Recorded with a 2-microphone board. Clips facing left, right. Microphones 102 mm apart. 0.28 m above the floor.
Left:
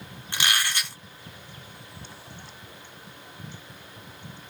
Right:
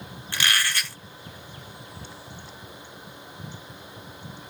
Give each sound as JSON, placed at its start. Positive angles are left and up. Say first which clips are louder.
{"t": 0.3, "sound": "a squeak", "louder": "right 1 dB", "side_deg": 20, "distance_m": 1.1}